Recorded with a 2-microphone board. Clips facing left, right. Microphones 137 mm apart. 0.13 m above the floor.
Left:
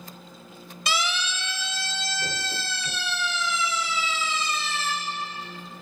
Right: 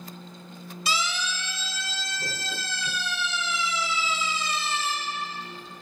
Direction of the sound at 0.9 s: 65° left (ahead or behind).